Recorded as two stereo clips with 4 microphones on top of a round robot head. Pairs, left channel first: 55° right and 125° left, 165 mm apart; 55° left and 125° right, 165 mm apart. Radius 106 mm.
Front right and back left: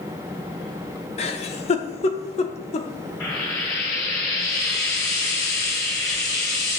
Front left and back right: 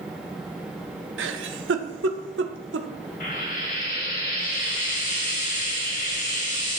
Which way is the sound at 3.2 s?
10° left.